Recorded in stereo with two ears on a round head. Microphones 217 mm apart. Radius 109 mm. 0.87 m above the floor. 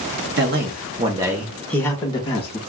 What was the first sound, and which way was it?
A man speaking, 45° right (ahead or behind).